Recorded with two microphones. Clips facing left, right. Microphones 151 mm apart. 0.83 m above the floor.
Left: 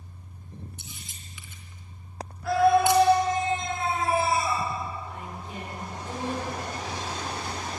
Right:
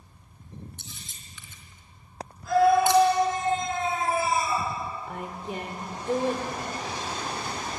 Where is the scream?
80° left, 8.5 m.